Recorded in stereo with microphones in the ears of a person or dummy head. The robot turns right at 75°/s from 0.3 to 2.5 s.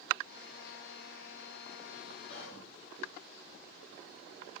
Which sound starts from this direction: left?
Whispering, at 2.3 s.